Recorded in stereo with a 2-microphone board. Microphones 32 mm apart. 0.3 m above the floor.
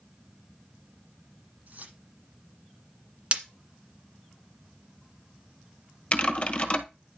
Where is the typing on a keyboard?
35° left (ahead or behind), 1.3 m.